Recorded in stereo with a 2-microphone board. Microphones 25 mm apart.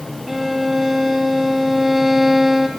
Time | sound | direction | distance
0.3 | a violin | 15° right (ahead or behind) | 0.8 m